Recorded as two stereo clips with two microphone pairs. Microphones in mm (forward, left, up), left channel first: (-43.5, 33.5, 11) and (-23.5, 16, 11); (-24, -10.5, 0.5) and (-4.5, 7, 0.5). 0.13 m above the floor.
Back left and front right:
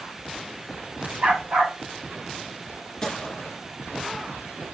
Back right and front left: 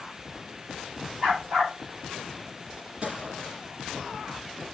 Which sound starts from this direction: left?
A gunshot, at 3.0 s.